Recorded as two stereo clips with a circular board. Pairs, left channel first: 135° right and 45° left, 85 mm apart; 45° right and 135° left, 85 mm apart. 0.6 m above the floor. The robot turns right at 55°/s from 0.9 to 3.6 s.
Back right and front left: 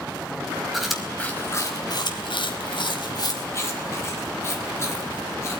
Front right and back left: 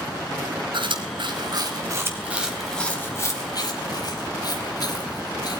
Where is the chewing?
130° left, 4.5 m; by 5.6 s 80° right, 4.5 m.